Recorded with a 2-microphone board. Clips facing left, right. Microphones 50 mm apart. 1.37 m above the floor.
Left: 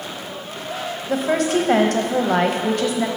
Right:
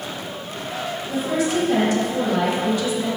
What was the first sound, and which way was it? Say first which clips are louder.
A woman speaking: left 3 dB; 60° left (ahead or behind).